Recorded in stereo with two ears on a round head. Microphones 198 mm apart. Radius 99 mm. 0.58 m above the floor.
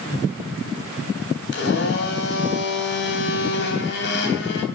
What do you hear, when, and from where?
1.5 s a blender: 55° left (ahead or behind), 3.5 m